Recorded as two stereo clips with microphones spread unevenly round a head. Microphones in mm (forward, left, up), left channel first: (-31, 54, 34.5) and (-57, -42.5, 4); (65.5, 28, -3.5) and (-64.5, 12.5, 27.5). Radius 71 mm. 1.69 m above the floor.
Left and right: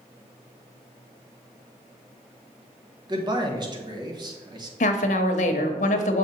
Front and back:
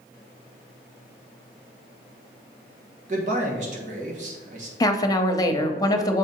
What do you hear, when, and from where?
3.1 s a man speaking: 155° right, 1.3 m
4.8 s a woman speaking: 70° left, 0.8 m